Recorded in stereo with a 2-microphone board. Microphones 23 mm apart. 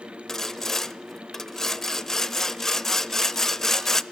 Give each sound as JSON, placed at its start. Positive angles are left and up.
{"t": 0.3, "sound": "sawing", "side_deg": 20, "distance_m": 0.6}